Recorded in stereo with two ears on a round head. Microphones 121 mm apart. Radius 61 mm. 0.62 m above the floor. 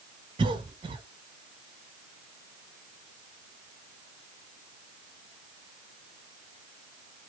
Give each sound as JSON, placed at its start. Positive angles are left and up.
{"t": 0.4, "sound": "a cough", "side_deg": -35, "distance_m": 1.1}